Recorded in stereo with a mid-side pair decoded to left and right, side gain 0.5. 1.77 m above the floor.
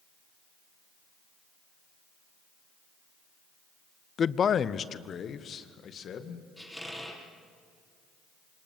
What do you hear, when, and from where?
4.2 s a man speaking: 40° left, 0.6 m; by 6.5 s 55° left, 2.5 m
6.6 s a squeak: 5° left, 6 m